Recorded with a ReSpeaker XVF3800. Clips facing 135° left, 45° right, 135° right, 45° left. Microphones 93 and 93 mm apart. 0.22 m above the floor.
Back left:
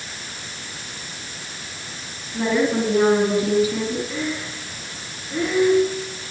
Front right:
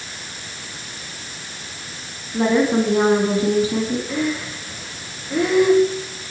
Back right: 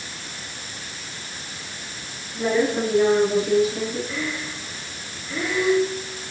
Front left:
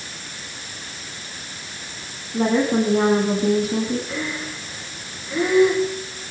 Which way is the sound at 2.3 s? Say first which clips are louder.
Front right 3 dB, front left 3 dB; 10° left.